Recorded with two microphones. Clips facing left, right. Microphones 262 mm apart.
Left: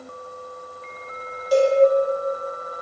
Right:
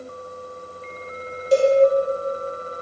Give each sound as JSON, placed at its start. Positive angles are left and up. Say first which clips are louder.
{"t": 1.5, "sound": "a cowbell", "louder": "right 1 dB", "side_deg": -25, "distance_m": 0.7}